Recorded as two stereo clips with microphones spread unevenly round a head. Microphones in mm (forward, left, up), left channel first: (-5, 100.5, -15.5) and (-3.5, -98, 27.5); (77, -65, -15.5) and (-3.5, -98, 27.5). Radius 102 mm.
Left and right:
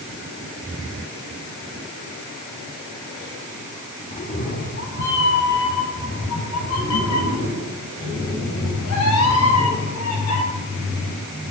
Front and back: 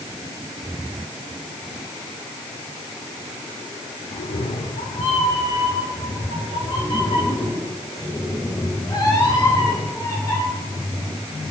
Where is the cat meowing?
30° left, 1.5 m; by 10.4 s 105° left, 5.5 m.